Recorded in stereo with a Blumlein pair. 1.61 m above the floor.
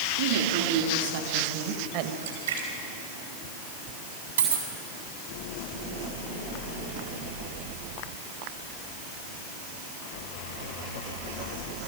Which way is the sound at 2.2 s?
65° right.